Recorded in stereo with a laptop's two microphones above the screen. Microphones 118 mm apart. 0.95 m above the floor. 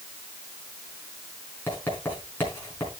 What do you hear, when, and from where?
1.7 s writing: 20° left (ahead or behind), 5 m